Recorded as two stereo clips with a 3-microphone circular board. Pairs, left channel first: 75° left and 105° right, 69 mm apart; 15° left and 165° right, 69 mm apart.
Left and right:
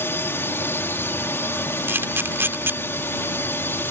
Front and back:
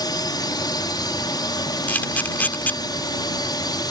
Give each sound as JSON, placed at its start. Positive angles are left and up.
{"t": 0.0, "sound": "a drone", "azimuth_deg": 20}
{"t": 1.9, "sound": "a camera shutter", "azimuth_deg": -50}